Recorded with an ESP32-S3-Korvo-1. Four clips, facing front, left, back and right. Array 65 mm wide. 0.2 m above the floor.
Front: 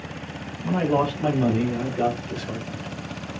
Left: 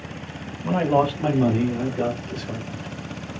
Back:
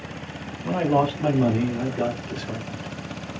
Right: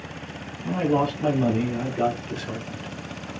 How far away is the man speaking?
About 1.2 m.